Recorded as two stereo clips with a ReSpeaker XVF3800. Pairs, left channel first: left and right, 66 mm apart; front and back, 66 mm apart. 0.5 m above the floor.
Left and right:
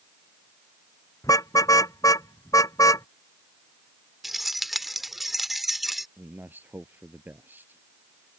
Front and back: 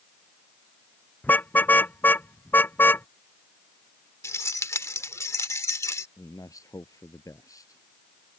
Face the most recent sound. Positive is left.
turn(degrees=-30)